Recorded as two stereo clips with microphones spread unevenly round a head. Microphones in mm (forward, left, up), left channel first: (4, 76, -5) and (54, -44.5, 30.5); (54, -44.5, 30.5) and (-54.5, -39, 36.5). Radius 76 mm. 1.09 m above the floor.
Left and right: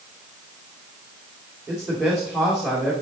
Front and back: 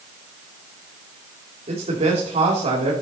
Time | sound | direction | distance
1.7 | a man speaking | 150° right | 2.5 m